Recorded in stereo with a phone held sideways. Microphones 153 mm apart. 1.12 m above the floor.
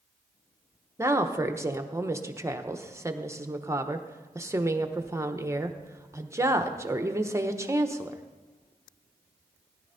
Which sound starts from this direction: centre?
A woman speaking, at 1.0 s.